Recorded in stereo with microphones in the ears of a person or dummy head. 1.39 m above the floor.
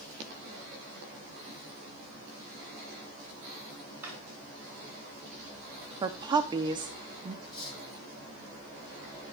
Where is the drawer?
10° right (ahead or behind), 3 m.